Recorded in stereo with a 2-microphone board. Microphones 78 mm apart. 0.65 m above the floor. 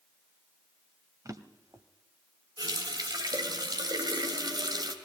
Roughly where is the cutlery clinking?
No cutlery clinking in this recording.